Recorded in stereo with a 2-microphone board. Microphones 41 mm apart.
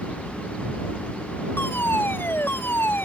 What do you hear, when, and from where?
1.6 s a fire alarm: 80° left